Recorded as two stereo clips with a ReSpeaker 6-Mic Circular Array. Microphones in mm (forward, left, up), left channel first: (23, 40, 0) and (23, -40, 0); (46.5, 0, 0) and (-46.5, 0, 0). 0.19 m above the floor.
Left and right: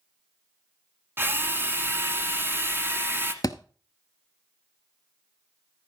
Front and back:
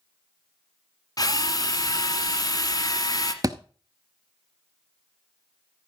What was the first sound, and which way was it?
A drill, 35° right.